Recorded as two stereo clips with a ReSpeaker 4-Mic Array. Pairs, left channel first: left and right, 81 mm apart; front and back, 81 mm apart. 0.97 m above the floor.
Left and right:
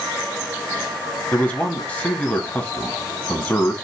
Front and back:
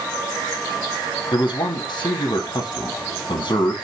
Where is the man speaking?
20° left, 1.7 m.